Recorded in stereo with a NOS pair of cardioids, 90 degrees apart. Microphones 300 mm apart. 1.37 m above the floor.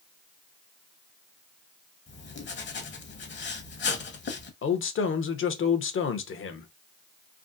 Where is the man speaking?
45° left, 0.8 m.